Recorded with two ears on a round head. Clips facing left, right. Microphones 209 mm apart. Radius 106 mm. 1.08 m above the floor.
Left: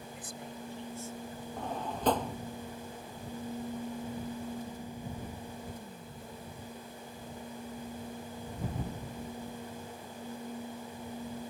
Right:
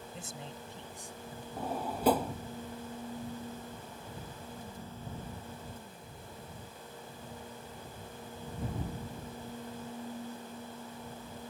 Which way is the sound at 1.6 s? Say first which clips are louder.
Right 2 dB; 10° right (ahead or behind).